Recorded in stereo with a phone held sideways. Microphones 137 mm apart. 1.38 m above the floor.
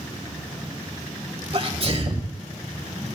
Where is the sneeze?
45° right (ahead or behind), 1.5 m.